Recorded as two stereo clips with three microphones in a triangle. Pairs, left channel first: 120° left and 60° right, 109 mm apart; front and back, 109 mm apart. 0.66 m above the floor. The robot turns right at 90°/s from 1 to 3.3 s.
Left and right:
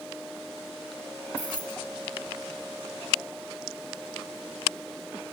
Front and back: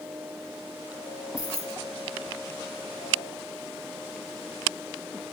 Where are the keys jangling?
150° left, 1.8 m; by 1.8 s 170° right, 1.8 m.